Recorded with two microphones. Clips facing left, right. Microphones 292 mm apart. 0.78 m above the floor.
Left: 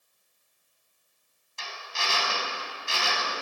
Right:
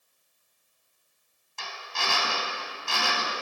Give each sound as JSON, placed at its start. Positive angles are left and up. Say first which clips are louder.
{"t": 1.6, "sound": "a drill", "louder": "right 2 dB", "side_deg": -65, "distance_m": 4.0}